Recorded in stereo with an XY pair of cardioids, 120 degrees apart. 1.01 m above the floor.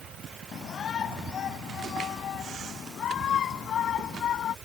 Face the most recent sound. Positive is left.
turn(degrees=55)